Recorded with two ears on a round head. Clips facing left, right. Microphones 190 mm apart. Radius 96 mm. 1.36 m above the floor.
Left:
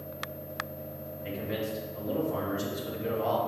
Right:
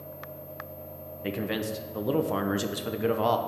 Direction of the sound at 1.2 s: 70° right (ahead or behind).